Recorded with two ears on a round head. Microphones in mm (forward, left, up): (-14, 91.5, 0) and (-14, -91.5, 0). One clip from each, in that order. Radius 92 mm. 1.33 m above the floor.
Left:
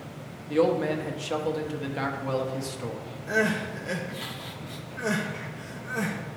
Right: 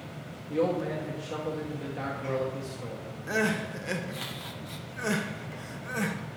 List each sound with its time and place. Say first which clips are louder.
0.5 s a man speaking: left 5 dB; 35° left (ahead or behind), 1.1 m
3.3 s crying: left 3 dB; 20° right (ahead or behind), 0.6 m